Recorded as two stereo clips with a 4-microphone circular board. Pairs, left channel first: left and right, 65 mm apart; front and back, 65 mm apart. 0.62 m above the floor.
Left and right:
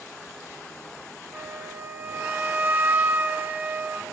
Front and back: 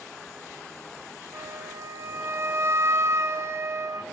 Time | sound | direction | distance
1.3 | a flute | 145° right | 1.0 m